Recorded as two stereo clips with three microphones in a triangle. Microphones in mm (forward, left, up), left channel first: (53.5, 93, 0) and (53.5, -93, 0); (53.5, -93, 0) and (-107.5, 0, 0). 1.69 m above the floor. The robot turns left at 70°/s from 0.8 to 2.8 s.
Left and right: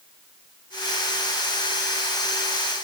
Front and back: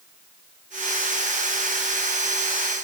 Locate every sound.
Only background noise.